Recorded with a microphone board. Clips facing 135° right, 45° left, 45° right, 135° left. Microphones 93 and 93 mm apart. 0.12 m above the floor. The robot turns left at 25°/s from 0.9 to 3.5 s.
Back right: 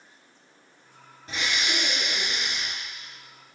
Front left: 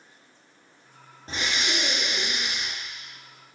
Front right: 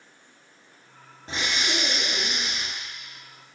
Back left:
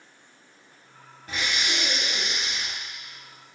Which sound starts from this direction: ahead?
Breathing, at 1.3 s.